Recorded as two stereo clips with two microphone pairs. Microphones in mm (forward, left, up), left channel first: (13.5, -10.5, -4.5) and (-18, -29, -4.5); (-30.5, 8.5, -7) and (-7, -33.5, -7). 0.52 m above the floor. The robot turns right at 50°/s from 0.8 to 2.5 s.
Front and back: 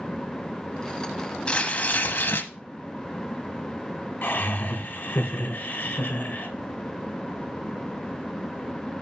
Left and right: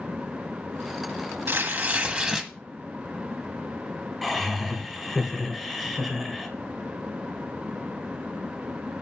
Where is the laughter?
25° left, 2.5 m.